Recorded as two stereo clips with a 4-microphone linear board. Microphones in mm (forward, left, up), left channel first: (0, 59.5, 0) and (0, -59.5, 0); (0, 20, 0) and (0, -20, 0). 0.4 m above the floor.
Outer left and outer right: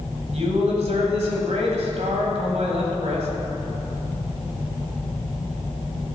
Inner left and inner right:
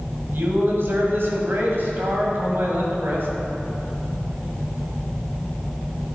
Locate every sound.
0.3 s a man speaking: 65° right (ahead or behind), 1.9 m